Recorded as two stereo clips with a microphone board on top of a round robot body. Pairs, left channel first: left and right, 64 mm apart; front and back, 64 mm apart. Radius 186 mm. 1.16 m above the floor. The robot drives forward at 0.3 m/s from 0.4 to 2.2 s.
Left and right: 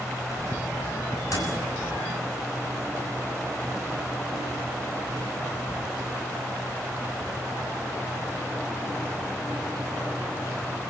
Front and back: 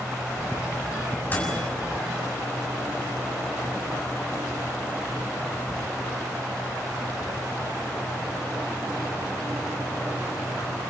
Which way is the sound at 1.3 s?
60° left.